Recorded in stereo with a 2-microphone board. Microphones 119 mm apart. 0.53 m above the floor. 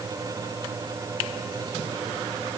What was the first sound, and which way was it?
Only background noise.